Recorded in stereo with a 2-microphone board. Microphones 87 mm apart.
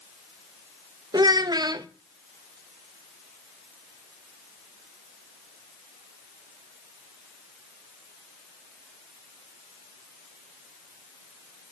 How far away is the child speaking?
About 0.5 m.